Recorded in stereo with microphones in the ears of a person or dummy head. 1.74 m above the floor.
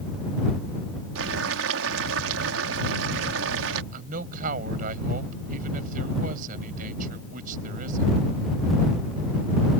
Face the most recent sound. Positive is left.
turn(degrees=-45)  # may be behind; listen again after turning